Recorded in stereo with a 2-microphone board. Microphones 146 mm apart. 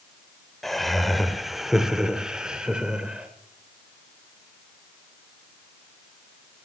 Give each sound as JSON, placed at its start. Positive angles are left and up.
{"t": 0.6, "sound": "laughter", "side_deg": 0, "distance_m": 1.3}